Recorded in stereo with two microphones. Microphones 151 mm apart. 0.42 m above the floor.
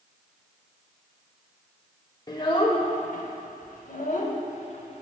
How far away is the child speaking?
About 0.8 m.